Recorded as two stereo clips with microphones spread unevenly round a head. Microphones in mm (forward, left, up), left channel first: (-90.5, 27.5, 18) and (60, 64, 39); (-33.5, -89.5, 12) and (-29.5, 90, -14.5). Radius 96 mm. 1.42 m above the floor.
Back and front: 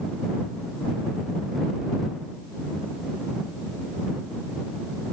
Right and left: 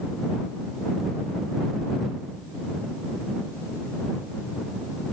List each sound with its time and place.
Only background noise.